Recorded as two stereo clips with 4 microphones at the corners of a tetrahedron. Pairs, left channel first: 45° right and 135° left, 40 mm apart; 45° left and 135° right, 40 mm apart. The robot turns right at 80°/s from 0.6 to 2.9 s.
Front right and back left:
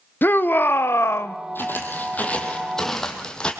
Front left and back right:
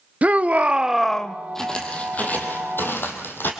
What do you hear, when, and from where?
0.2 s a shout: 80° right, 0.7 m; by 1.4 s 20° right, 0.7 m
1.6 s footsteps: 35° right, 2.5 m; by 3.5 s 20° left, 3 m